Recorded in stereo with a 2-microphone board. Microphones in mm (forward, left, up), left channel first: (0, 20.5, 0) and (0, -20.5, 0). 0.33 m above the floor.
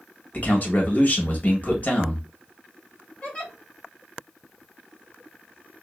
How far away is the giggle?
About 2.0 m.